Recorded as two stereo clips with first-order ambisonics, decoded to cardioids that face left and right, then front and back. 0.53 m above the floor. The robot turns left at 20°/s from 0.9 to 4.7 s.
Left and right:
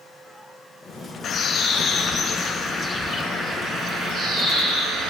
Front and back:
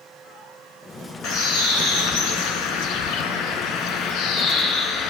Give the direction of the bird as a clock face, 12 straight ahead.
11 o'clock.